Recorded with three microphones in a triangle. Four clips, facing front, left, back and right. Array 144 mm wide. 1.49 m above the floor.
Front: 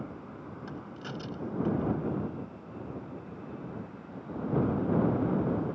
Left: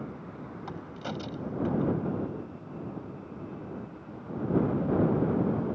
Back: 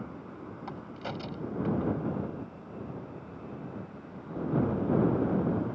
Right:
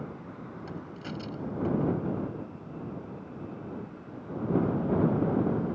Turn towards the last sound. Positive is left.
turn(degrees=140)